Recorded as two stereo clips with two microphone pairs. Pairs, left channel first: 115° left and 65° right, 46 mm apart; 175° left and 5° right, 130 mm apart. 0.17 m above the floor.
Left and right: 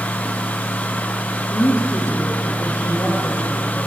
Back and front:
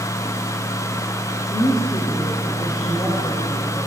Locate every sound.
1.5 s a woman speaking: 115° left, 7.5 m